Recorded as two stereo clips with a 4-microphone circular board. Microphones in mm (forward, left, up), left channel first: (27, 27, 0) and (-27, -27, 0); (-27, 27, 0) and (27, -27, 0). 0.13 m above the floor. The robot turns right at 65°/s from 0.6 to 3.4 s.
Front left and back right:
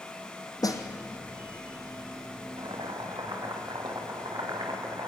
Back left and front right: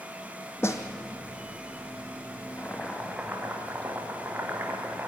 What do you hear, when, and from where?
0.6 s a snare drum: 80° left, 2 m; by 0.8 s 95° left, 2 m
2.6 s boiling: 160° right, 4.5 m; by 5.1 s 110° right, 4.5 m